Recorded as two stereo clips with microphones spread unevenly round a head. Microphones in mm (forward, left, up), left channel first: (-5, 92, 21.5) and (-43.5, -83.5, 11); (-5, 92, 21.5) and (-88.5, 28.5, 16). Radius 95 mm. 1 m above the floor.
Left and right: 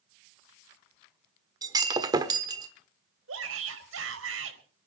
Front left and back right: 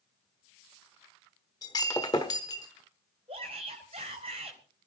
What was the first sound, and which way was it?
Breaking glass, 30° right.